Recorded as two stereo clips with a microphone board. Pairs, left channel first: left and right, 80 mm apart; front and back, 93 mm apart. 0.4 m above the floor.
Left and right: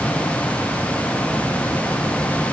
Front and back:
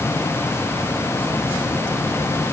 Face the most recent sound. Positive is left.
No sound to turn to.